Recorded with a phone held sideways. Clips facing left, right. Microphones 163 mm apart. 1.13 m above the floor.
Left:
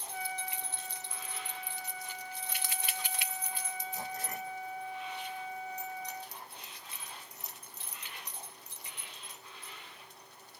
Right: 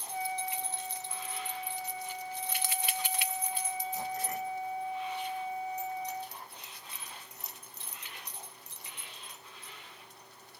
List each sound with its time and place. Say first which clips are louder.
0.1 s a trumpet: right 5 dB; 30° right (ahead or behind)